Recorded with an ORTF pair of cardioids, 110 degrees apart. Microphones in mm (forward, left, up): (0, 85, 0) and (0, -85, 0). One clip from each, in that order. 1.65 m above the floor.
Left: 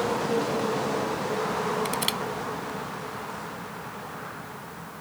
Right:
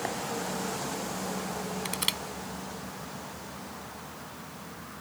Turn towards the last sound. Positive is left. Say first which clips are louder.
# left 3 dB
turn(degrees=0)